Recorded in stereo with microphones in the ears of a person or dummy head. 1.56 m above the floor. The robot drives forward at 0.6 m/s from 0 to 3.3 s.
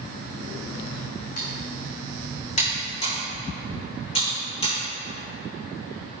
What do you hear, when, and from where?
1.4 s typing on a keyboard: 50° left (ahead or behind), 2.5 m; by 4.8 s 35° left (ahead or behind), 3.5 m